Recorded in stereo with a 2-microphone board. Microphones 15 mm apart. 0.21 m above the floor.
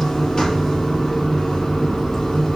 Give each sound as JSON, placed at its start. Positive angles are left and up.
{"t": 0.0, "sound": "running water", "side_deg": 55, "distance_m": 4.5}